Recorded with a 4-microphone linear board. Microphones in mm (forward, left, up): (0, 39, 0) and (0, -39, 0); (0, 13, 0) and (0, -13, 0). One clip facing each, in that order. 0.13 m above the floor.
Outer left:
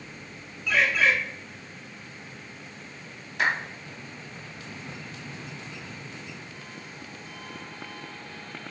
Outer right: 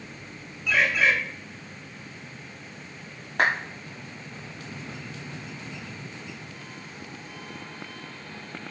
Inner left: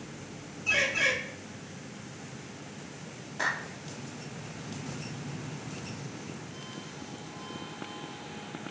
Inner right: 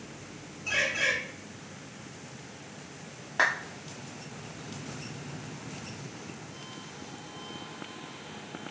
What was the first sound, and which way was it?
A bird, 5° right (ahead or behind).